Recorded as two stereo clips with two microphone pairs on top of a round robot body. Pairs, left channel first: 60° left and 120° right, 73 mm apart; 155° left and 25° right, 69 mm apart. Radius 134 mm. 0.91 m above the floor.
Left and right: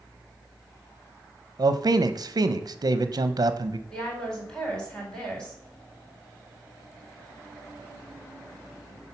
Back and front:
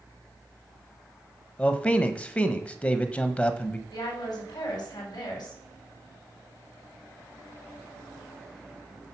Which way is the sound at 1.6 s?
135° right.